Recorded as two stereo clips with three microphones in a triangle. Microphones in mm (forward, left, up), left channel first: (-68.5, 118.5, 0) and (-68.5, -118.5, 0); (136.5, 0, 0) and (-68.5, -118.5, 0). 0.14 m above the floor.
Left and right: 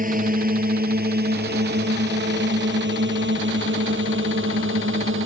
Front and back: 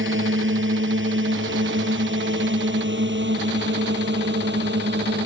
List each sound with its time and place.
0.0 s a drone: 135° right; by 5.3 s 115° right